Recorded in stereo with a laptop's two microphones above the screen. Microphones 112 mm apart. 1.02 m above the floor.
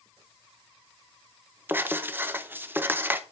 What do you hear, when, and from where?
1.7 s writing: 20° right (ahead or behind), 0.6 m